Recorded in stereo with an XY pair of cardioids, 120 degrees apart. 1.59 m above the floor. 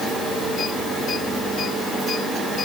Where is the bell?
No bell in this recording.